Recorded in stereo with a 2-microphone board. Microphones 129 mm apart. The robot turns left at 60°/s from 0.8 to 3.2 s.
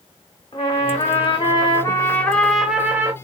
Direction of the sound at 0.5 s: 105° left.